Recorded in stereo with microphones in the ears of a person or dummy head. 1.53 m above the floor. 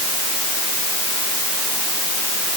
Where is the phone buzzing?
No phone buzzing in this recording.